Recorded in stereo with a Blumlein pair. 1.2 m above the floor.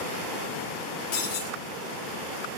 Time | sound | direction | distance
1.1 | breaking glass | 50° left | 4.5 m